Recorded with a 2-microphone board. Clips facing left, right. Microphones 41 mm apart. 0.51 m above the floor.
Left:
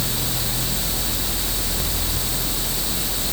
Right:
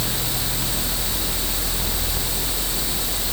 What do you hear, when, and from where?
Only background noise.